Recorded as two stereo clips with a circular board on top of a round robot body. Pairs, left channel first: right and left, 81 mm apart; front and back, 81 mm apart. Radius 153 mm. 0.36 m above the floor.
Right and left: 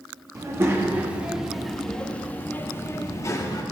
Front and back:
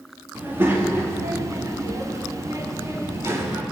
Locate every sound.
0.3 s a child speaking: 125° left, 1.2 m; by 3.6 s 130° right, 1.6 m